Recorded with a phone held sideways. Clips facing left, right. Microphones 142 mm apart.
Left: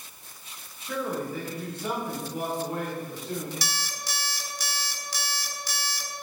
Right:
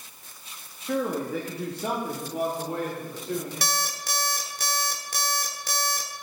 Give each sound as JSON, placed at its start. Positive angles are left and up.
{"t": 0.8, "sound": "a man speaking", "side_deg": -50, "distance_m": 1.3}
{"t": 3.6, "sound": "an alarm clock", "side_deg": -55, "distance_m": 1.0}